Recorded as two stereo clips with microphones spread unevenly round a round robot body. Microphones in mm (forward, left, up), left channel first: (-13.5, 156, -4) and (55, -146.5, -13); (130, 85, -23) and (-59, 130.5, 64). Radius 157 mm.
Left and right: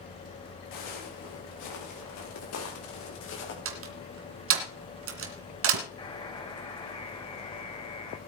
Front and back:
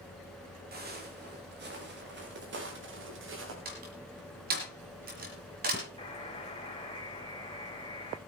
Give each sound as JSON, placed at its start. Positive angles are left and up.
{"t": 0.7, "sound": "footsteps", "azimuth_deg": 130, "distance_m": 5.5}
{"t": 3.6, "sound": "a door slam", "azimuth_deg": -125, "distance_m": 2.0}
{"t": 6.0, "sound": "a buzzer", "azimuth_deg": 30, "distance_m": 2.5}